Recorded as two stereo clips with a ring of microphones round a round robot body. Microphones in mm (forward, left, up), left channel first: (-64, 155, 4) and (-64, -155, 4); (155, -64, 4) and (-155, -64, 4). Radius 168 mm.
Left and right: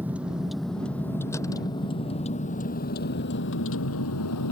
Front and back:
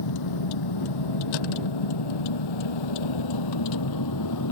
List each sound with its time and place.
0.0 s a vehicle: 5° right; by 4.5 s 45° left